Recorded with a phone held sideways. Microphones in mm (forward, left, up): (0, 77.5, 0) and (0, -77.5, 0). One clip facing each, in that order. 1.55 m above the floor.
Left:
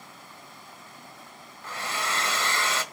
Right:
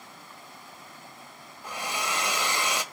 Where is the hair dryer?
15° right (ahead or behind), 1.5 m.